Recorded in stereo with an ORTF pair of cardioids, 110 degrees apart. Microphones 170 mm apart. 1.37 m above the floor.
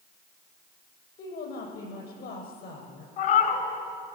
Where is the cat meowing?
70° left, 3.5 m.